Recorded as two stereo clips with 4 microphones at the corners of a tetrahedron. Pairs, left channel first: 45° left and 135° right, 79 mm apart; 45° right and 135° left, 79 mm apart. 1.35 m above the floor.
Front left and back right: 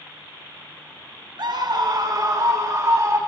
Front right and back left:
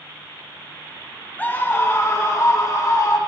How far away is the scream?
About 1.3 m.